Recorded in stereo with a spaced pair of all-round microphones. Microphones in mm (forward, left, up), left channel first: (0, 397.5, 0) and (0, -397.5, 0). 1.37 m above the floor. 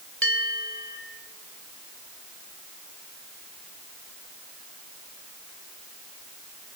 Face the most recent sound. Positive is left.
turn(degrees=-15)  # may be behind; listen again after turning